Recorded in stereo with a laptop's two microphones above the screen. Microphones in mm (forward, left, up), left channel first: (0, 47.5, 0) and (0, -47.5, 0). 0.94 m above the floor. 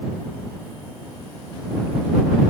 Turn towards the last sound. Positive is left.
No sound to turn to.